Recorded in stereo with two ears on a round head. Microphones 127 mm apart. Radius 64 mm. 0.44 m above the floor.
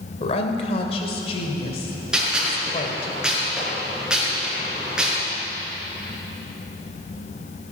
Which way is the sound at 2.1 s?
5° right (ahead or behind).